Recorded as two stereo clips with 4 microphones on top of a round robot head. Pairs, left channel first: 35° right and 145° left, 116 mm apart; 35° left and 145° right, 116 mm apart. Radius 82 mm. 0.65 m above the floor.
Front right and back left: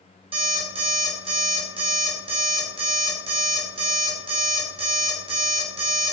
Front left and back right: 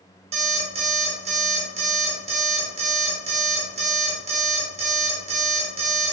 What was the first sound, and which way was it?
An alarm clock, 175° right.